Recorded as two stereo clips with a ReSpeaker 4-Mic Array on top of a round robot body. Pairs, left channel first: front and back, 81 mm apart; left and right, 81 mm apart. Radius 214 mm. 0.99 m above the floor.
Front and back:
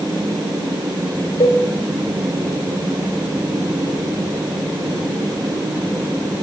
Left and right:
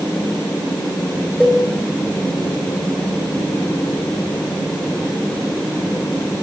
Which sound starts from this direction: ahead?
A cowbell, at 1.4 s.